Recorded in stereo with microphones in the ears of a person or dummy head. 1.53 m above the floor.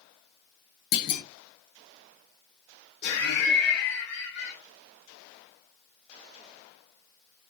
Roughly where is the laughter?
Left.